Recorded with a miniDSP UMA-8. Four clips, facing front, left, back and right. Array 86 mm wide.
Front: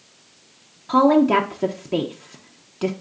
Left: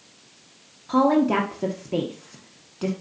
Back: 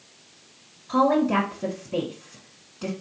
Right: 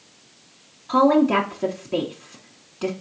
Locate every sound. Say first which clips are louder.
0.9 s a woman speaking: right 2 dB, front 5 dB; 5° left, 0.8 m